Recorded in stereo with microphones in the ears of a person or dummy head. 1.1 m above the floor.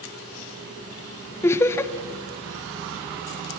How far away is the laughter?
About 0.8 m.